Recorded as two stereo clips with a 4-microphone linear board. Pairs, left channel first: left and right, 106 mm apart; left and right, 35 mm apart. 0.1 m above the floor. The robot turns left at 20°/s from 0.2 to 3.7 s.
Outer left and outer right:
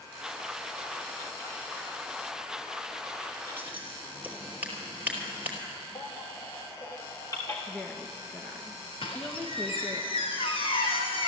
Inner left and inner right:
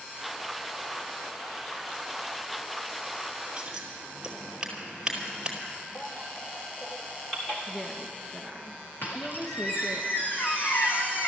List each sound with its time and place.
3.6 s scissors: 20° right (ahead or behind), 2.5 m; by 5.6 s 15° right (ahead or behind), 2.5 m
6.0 s a baby crying: 30° left (ahead or behind), 3.5 m
7.7 s a woman speaking: 10° left (ahead or behind), 1.2 m
9.0 s a squeak: 60° left (ahead or behind), 1.6 m